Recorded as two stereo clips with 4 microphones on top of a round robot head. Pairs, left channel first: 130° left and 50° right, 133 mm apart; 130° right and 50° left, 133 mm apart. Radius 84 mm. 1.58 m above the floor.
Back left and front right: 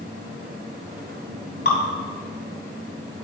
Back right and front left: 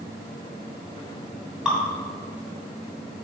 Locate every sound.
1.6 s dripping: 135° left, 3 m